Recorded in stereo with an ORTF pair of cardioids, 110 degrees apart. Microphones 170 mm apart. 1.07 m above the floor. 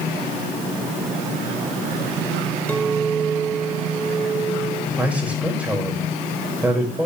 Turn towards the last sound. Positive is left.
turn(degrees=-10)